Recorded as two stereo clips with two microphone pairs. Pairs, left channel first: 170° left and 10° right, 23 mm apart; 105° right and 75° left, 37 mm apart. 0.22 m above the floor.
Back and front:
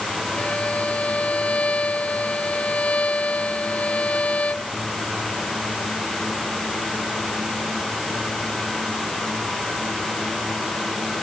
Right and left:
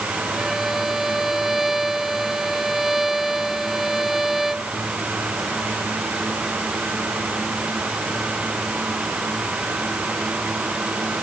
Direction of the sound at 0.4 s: 155° left.